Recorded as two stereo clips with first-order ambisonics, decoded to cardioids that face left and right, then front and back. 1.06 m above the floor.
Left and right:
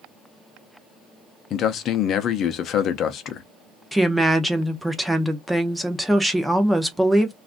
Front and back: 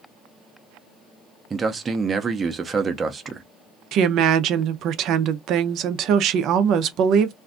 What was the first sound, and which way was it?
A man speaking, 115° left.